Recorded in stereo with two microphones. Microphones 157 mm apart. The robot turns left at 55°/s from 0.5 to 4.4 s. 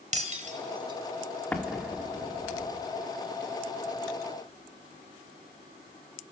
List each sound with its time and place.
0.1 s breaking glass: 55° right (ahead or behind), 3 m; by 2.5 s 55° left (ahead or behind), 3 m
1.5 s an explosion: 10° left (ahead or behind), 2.5 m; by 2.7 s 55° right (ahead or behind), 2.5 m